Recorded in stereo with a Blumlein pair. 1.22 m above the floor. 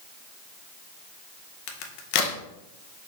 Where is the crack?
45° left, 0.6 m.